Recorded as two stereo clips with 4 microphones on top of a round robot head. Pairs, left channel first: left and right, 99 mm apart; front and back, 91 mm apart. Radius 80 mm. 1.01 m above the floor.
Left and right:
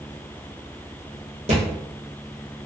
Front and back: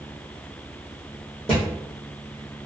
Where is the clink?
I don't hear a clink.